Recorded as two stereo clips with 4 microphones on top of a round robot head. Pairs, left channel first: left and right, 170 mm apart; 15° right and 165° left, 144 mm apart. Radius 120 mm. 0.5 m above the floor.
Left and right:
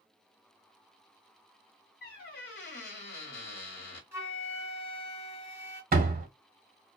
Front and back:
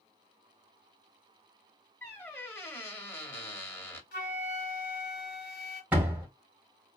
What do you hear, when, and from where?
2.0 s a squeak: 60° left, 1.1 m
4.1 s a flute: 10° right, 1.0 m
5.9 s a door slam: 115° right, 1.1 m